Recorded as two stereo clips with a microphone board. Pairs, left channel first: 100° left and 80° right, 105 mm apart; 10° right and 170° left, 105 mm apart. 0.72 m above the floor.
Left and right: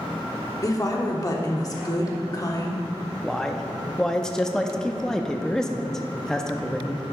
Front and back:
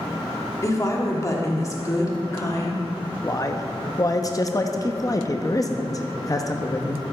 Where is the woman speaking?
45° left, 1.2 m.